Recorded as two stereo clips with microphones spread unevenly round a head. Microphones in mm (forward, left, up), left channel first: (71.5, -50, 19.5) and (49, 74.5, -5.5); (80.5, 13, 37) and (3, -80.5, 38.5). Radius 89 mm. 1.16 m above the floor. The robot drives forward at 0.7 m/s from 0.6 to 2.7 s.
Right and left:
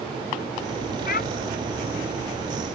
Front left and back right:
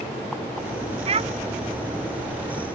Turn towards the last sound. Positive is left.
turn(degrees=-100)